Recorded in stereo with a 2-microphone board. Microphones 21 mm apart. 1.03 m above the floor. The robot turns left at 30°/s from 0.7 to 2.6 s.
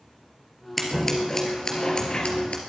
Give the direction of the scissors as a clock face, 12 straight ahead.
6 o'clock.